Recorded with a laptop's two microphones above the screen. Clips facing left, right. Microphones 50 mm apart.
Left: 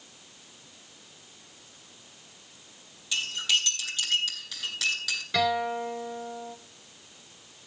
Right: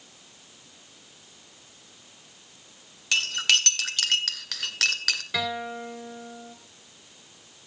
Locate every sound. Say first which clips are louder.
3.1 s cutlery clinking: right 4 dB; 65° right (ahead or behind), 1.9 m
5.3 s a guitar: left 8 dB; 5° right (ahead or behind), 2.5 m